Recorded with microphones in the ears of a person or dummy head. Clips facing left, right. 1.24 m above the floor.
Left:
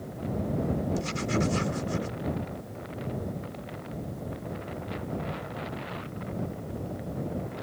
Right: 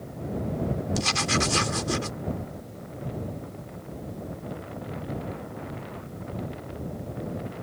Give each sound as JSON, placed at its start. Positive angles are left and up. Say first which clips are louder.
{"t": 0.9, "sound": "writing", "louder": "even", "side_deg": -85}